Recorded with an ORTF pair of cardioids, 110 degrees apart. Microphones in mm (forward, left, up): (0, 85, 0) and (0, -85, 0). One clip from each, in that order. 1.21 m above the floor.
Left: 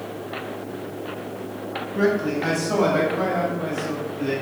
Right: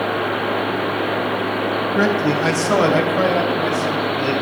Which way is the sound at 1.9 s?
40° right.